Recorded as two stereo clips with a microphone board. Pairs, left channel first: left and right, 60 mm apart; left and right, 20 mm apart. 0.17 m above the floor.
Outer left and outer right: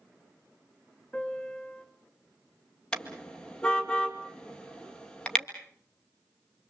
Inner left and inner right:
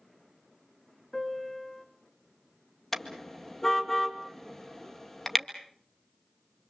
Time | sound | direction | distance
1.1 | a piano | 15° left (ahead or behind) | 2.5 m
2.9 | a car horn | 15° left (ahead or behind) | 2 m